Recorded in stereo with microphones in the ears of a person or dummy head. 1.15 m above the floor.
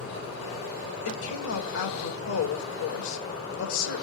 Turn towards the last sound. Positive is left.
turn(degrees=75)  # may be behind; listen again after turning